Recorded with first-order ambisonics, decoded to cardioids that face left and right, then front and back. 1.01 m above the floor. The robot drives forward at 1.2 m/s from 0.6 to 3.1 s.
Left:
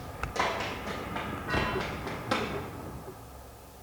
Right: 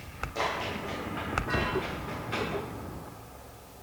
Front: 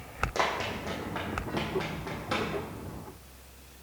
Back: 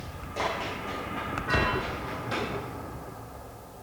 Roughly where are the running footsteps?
Ahead.